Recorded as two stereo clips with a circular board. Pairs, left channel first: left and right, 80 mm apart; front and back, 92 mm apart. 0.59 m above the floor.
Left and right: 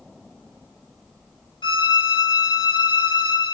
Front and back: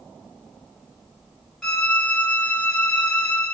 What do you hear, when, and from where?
1.6 s a violin: 80° left, 1.2 m